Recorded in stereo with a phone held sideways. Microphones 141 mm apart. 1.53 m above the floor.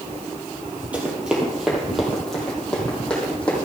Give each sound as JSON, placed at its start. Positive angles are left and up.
{"t": 0.9, "sound": "running footsteps", "side_deg": -10, "distance_m": 3.0}